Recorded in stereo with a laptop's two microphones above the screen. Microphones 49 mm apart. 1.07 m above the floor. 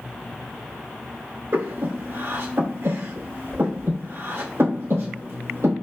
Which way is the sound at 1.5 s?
75° right (ahead or behind).